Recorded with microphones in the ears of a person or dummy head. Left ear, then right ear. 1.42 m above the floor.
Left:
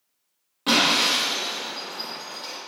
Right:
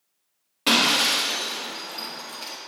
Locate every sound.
0.7 s breaking glass: 15° right (ahead or behind), 1.0 m